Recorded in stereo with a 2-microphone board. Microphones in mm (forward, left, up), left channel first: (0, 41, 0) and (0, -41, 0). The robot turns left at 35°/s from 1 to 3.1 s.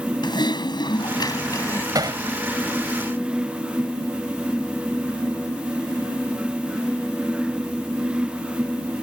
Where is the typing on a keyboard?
60° left (ahead or behind); by 1.9 s 35° left (ahead or behind).